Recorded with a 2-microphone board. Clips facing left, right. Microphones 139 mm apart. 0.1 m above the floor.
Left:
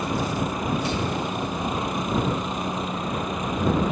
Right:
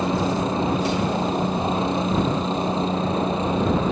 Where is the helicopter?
25° right (ahead or behind); by 3.9 s 30° right (ahead or behind).